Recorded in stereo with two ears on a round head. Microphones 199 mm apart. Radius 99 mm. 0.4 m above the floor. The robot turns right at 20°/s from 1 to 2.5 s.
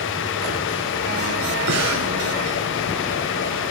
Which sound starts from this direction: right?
Breathing, at 1.7 s.